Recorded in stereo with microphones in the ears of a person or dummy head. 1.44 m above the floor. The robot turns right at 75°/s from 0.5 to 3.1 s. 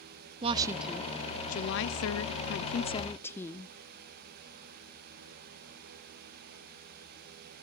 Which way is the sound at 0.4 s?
30° right.